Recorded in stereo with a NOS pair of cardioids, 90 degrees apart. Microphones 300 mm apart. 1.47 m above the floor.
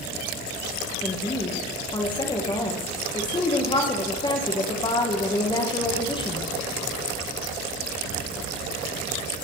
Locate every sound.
1.0 s a woman speaking: 15° left, 1.4 m